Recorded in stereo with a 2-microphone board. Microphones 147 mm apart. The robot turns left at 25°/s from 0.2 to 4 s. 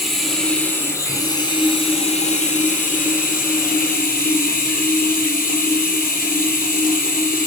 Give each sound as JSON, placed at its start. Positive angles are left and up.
{"t": 0.0, "sound": "running water", "azimuth_deg": 180, "distance_m": 0.9}